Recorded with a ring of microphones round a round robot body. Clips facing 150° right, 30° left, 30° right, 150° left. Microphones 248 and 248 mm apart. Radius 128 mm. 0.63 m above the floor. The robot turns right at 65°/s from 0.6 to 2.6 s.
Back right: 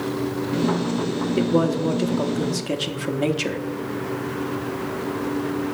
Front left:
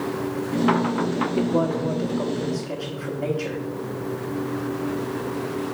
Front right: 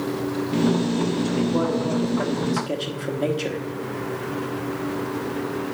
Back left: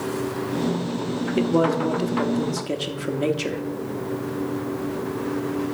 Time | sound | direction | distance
1.4 | a man speaking | 145° left | 1.0 m